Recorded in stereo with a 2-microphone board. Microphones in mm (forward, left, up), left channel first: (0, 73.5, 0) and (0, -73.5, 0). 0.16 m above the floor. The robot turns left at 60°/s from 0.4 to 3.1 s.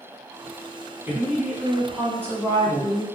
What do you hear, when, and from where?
1.1 s a woman speaking: 15° right (ahead or behind), 1.1 m; by 3.0 s 20° left (ahead or behind), 1.1 m